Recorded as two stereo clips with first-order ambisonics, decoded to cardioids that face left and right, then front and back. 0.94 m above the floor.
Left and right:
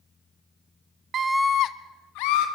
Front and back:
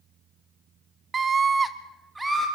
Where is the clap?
No clap in this recording.